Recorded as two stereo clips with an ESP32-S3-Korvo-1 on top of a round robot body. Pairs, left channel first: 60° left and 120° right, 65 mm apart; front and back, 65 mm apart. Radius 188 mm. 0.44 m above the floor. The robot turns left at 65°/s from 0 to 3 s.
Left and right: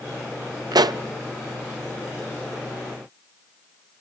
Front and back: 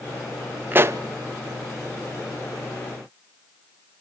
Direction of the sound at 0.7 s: 120° right.